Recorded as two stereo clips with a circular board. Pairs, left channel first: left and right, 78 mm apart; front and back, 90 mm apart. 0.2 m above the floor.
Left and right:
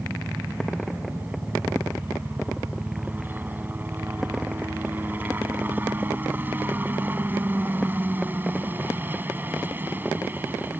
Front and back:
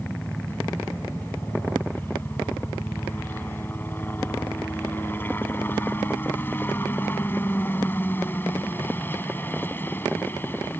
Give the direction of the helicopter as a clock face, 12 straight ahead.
2 o'clock.